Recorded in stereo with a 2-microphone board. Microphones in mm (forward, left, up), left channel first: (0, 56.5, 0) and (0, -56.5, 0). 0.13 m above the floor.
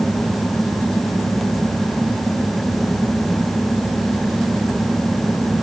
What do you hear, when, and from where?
Only background noise.